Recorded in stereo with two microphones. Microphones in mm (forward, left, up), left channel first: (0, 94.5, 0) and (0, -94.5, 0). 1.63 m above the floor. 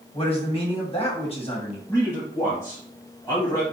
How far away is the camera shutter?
No camera shutter in this recording.